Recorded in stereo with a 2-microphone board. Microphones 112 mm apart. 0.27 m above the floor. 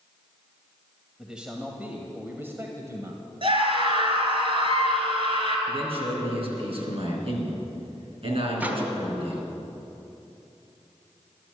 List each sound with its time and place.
1.2 s a man speaking: 5° right (ahead or behind), 1.7 m; by 3.2 s 30° right (ahead or behind), 1.7 m
3.4 s a scream: 50° right (ahead or behind), 3 m
5.7 s a man speaking: 60° right (ahead or behind), 4 m
8.6 s a microwave: 15° right (ahead or behind), 2 m